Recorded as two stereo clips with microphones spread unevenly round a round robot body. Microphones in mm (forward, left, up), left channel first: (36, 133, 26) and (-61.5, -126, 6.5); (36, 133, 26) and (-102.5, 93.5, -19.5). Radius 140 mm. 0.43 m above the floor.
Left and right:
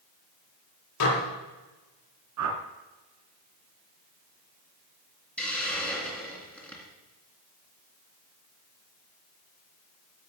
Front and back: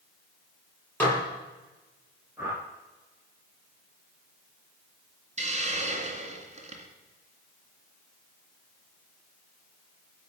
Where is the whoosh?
80° right, 1.5 m.